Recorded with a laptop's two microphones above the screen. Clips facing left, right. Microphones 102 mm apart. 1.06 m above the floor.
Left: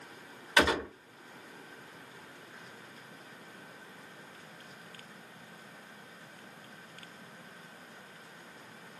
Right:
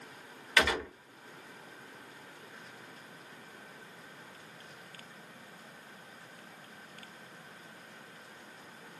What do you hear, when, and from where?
0.6 s a gunshot: 25° left (ahead or behind), 0.8 m